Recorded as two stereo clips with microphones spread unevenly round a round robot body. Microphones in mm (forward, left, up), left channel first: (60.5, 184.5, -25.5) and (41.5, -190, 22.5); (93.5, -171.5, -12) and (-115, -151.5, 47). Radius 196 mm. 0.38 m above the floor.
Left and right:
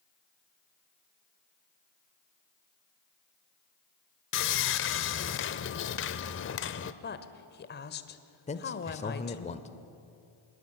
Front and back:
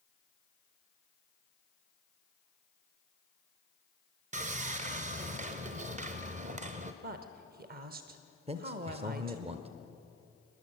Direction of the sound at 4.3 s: 110° left.